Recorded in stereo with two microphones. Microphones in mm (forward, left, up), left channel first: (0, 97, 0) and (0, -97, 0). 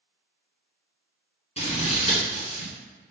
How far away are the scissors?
About 1.6 m.